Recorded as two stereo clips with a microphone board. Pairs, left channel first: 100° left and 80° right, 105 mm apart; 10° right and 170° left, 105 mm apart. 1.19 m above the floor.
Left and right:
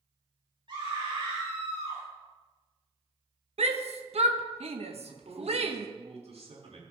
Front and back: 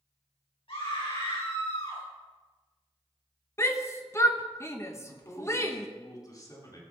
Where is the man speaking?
65° right, 3 m.